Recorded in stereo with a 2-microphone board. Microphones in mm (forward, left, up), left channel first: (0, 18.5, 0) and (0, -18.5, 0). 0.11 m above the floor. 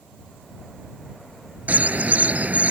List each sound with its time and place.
1.7 s a bird: 45° right (ahead or behind)